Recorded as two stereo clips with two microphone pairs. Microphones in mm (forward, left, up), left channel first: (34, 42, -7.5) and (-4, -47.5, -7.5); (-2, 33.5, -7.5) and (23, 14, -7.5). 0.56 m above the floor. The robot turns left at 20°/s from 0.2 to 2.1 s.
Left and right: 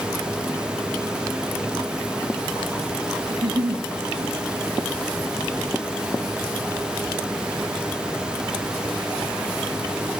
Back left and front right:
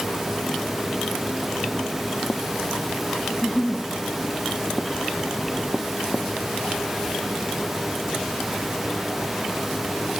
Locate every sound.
3.3 s a giggle: 145° right, 3.5 m